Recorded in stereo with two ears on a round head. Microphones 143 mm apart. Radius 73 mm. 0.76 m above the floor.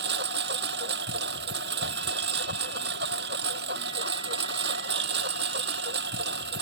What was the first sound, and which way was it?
A lawn mower, 80° right.